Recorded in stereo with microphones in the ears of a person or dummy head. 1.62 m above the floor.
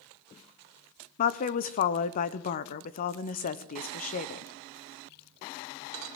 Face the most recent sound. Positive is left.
turn(degrees=50)  # may be behind; listen again after turning